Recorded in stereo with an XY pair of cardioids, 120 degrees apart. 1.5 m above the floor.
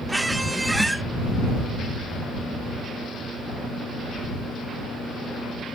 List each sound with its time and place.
0.1 s a squeak: 10° right